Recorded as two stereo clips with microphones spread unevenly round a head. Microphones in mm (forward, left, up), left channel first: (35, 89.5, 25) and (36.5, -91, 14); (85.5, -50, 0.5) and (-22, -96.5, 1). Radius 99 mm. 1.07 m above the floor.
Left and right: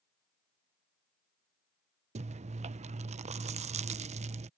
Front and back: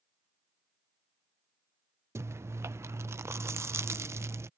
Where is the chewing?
100° right.